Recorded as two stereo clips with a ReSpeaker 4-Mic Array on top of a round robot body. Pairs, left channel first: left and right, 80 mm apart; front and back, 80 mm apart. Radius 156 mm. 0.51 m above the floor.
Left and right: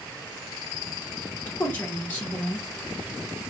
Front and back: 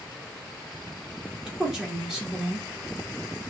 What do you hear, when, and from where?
1.5 s a woman speaking: 100° left, 1.0 m